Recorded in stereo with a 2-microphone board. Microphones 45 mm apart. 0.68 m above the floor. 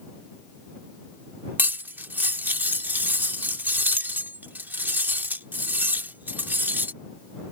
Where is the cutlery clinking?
40° right (ahead or behind).